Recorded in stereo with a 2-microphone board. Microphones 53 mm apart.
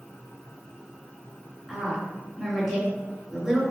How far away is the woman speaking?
About 1.7 m.